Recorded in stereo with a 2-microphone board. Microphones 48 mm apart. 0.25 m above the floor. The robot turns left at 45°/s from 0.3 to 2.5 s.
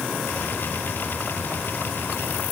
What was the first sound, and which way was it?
Only background noise.